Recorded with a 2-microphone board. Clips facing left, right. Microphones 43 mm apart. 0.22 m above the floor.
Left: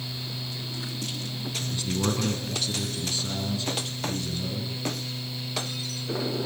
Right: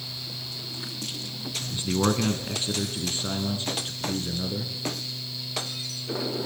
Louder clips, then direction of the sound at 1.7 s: Right 4 dB; 30° right (ahead or behind).